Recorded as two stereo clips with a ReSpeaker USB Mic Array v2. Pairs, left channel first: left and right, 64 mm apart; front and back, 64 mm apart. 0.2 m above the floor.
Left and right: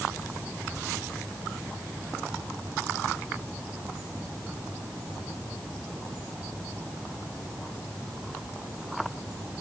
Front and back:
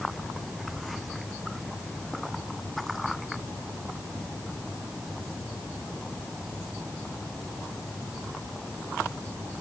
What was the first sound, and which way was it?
Only background noise.